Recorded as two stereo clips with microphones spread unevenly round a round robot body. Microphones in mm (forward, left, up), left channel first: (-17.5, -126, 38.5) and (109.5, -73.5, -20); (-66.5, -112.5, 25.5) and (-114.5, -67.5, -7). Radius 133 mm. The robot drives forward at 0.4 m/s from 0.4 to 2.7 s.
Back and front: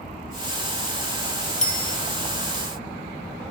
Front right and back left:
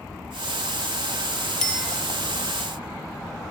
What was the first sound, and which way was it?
A bicycle bell, 120° right.